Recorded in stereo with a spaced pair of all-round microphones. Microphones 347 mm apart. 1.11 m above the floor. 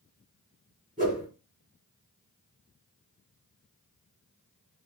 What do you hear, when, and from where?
1.0 s a whoosh: 20° right (ahead or behind), 1.5 m